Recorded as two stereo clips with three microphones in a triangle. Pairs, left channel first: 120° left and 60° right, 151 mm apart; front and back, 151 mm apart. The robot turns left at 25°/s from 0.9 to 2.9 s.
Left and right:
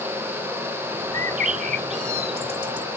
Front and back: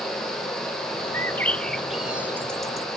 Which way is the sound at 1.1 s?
70° right.